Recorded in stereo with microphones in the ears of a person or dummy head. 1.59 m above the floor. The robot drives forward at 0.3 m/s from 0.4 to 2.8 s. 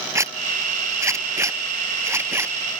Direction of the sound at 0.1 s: 20° right (ahead or behind).